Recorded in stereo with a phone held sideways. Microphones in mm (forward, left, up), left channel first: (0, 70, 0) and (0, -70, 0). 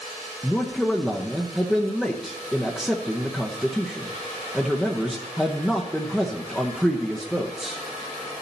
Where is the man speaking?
Centre (ahead or behind), 0.8 m.